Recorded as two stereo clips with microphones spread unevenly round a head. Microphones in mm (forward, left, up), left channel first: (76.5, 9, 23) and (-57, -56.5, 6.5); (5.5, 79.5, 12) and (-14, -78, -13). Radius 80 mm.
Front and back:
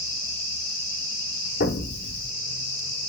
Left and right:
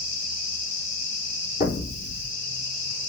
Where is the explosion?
35° left, 3 m.